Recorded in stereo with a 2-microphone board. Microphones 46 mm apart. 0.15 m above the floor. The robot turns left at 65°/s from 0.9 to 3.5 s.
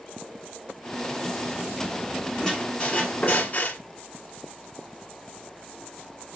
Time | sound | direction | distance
2.4 | a squeak | 165° left | 1.2 m